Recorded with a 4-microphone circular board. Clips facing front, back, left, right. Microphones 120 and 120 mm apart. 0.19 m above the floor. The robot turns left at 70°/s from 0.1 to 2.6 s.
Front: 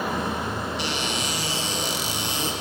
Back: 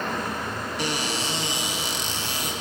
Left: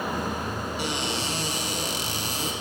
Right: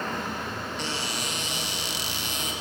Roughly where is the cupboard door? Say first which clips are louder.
Even, left 4 dB; behind.